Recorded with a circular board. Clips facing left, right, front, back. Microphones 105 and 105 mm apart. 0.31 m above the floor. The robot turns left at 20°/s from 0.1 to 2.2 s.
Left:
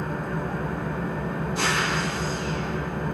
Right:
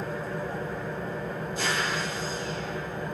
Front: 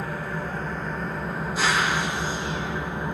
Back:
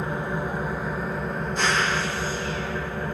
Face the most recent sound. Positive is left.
turn(degrees=70)